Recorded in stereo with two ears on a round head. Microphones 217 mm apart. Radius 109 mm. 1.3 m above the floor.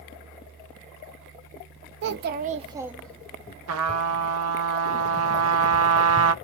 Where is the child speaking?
50° right (ahead or behind), 0.8 m; by 3.5 s 20° left (ahead or behind), 0.9 m.